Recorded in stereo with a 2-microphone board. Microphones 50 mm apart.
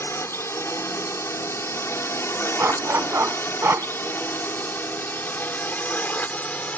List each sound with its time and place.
0.0 s a drone: 65° left (ahead or behind); by 6.8 s 30° left (ahead or behind)
2.6 s a dog barking: 55° right (ahead or behind)